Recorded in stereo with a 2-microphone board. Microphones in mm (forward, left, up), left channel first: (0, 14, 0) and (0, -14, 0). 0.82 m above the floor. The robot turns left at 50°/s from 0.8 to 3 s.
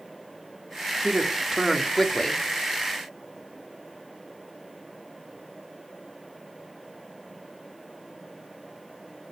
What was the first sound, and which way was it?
A man speaking, 140° right.